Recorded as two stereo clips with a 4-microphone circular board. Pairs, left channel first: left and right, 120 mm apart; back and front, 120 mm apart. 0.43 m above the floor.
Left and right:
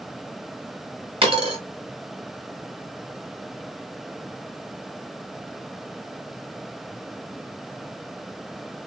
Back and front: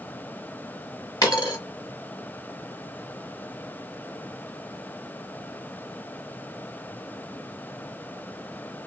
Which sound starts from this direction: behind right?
A dropped coin, at 1.2 s.